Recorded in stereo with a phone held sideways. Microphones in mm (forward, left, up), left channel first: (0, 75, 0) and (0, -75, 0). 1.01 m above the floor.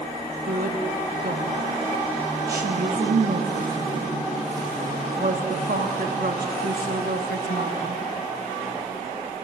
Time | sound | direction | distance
0.4 | a woman speaking | 80° right | 1.5 m